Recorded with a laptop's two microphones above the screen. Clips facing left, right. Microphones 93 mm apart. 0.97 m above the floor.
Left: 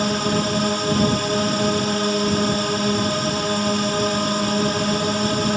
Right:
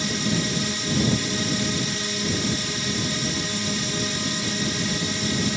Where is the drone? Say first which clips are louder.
Left 5 dB; 55° left (ahead or behind).